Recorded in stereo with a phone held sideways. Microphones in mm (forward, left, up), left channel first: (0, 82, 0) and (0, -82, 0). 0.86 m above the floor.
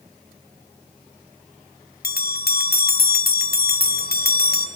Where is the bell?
70° left (ahead or behind), 0.7 m.